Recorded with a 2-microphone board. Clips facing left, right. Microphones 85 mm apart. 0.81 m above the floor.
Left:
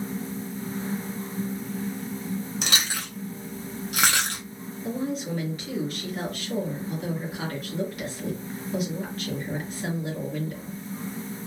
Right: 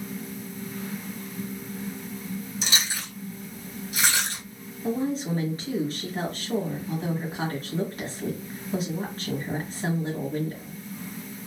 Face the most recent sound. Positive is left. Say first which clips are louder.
# right 3 dB
turn(degrees=-30)  # may be behind; listen again after turning